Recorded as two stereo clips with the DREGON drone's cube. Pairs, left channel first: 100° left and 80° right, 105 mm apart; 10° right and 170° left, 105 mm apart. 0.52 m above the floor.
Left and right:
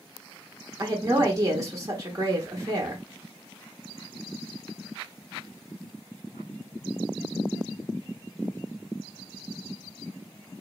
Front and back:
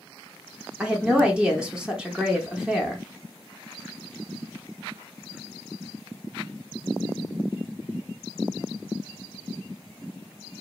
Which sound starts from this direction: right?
A woman speaking, at 0.8 s.